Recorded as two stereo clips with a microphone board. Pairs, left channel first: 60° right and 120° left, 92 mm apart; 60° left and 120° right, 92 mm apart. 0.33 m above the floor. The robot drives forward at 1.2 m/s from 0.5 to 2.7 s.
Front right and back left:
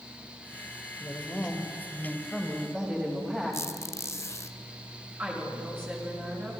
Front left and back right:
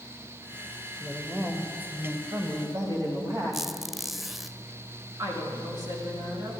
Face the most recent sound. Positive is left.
turn(degrees=-170)